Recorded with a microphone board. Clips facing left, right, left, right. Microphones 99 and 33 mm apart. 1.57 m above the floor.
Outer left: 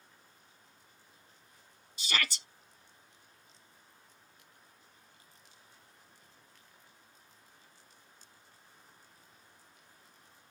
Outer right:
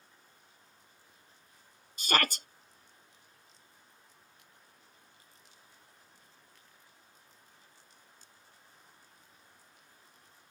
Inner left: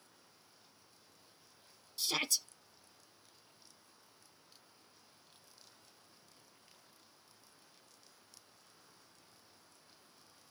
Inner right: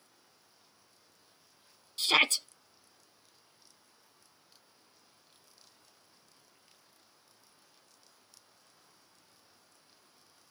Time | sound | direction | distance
2.0 | a shout | 55° right (ahead or behind) | ?